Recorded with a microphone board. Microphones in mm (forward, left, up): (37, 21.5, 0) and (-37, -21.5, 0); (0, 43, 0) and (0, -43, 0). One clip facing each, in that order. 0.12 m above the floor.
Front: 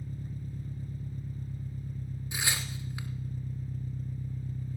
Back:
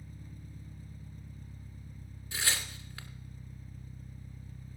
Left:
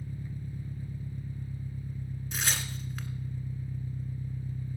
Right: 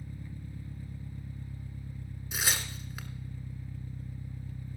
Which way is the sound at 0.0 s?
25° left.